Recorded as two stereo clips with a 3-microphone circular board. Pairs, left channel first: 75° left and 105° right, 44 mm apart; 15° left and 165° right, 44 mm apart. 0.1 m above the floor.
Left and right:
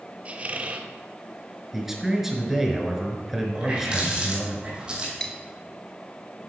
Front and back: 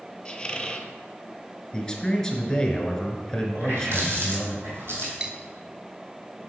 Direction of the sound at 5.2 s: 135° left.